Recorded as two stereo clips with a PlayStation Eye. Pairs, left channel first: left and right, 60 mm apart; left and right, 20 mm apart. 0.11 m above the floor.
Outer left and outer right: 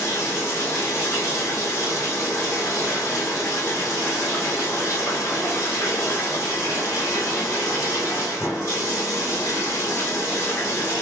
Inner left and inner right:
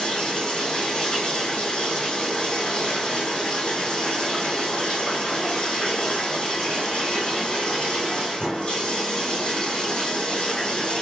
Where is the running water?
70° left (ahead or behind), 1.9 m.